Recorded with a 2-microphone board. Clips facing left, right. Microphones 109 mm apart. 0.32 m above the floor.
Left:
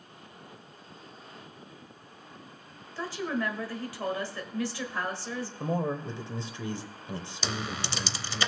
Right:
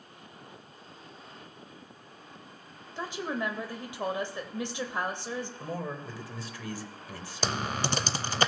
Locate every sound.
3.0 s a woman speaking: 20° right (ahead or behind), 1.1 m
5.6 s a man speaking: 25° left (ahead or behind), 0.9 m
7.4 s typing on a keyboard: 50° right (ahead or behind), 0.5 m